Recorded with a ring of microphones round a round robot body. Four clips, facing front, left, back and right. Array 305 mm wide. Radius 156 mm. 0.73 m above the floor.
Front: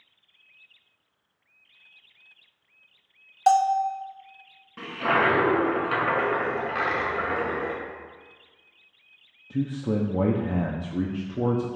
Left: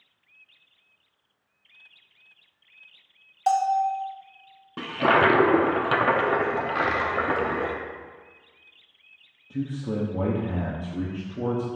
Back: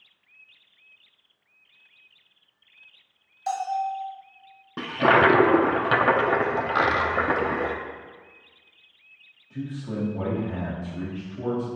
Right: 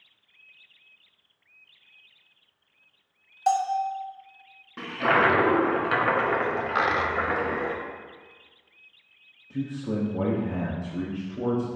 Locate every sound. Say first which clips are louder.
3.5 s a bell: left 2 dB, front 7 dB; straight ahead, 0.6 m
4.8 s a toilet flushing: left 2 dB, back 5 dB; 155° left, 0.9 m
6.8 s a dropped coin: even, back 4 dB; 145° right, 0.5 m
9.5 s a man speaking: even, front 6 dB; 5° left, 0.9 m